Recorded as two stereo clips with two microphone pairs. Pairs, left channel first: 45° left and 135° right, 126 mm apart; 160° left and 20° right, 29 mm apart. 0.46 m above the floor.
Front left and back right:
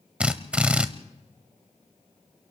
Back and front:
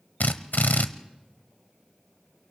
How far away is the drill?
About 0.9 m.